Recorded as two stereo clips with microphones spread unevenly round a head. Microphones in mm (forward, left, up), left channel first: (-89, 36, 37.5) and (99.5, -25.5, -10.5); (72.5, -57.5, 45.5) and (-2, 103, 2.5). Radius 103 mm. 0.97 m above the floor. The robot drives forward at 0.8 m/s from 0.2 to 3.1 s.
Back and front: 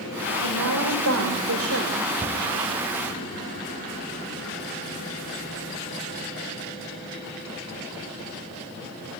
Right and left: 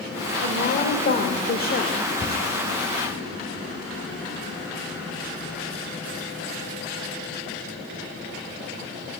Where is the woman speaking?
20° right, 4 m; by 2.0 s 30° right, 2.5 m.